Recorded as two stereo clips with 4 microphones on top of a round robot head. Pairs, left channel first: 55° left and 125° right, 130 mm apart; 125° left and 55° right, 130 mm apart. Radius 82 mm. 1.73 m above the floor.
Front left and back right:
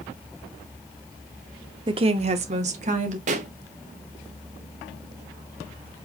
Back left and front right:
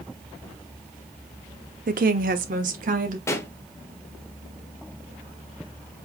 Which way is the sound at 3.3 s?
165° right.